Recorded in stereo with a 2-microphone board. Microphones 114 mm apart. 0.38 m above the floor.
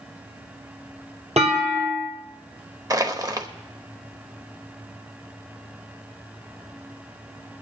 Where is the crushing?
35° right (ahead or behind), 0.9 m.